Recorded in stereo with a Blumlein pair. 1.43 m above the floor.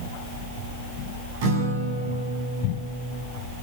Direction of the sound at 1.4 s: 50° right.